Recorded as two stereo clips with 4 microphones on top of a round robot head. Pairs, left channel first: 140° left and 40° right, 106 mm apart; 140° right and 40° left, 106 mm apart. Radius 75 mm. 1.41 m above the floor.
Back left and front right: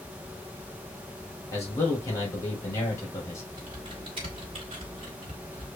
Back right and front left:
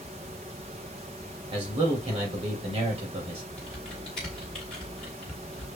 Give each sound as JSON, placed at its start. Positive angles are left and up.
{"t": 1.5, "sound": "a man speaking", "azimuth_deg": 75, "distance_m": 2.0}
{"t": 3.6, "sound": "typing on a keyboard", "azimuth_deg": -60, "distance_m": 1.1}